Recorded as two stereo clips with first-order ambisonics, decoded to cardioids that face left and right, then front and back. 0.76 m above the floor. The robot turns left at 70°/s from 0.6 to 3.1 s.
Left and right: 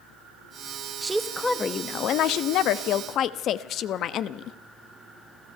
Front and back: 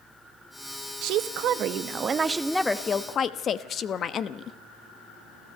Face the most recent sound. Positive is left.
turn(degrees=55)